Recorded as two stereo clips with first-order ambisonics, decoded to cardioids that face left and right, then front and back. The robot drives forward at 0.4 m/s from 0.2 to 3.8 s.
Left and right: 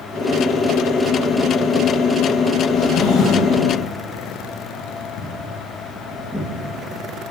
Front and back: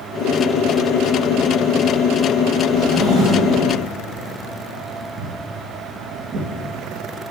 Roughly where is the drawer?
Behind left.